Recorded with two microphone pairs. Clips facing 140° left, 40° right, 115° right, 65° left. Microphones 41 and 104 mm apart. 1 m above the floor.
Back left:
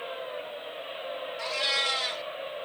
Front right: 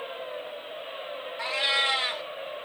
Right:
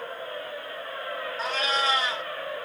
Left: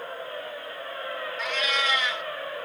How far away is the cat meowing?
About 0.7 m.